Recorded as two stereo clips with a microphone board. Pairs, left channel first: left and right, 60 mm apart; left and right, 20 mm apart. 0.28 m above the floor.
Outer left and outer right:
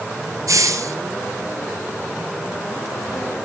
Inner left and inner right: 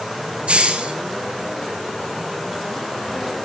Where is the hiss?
65° right (ahead or behind), 1.4 m.